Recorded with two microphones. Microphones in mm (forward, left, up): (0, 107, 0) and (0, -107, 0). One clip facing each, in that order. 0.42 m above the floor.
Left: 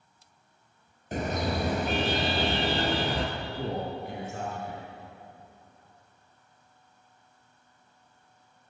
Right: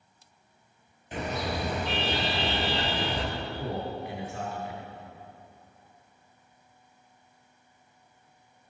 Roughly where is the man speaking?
Left.